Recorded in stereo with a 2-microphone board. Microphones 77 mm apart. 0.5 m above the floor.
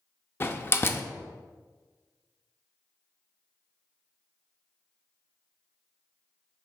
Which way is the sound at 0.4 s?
30° left (ahead or behind).